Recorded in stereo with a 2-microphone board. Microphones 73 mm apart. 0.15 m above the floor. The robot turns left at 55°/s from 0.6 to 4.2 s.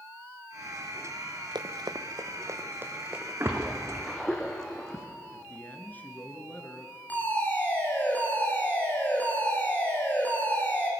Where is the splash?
35° right (ahead or behind), 3 m; by 5.0 s 10° left (ahead or behind), 3 m.